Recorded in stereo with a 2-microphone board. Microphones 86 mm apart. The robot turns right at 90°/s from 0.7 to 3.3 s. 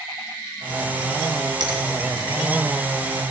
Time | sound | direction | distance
1.6 | a finger snap | 55° right (ahead or behind) | 2.5 m